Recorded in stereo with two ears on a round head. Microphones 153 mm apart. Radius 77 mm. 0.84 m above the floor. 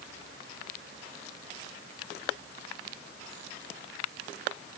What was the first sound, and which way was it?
Only background noise.